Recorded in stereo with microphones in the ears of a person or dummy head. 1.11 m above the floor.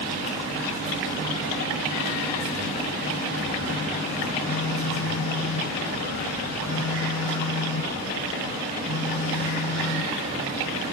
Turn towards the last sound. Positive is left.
turn(degrees=80)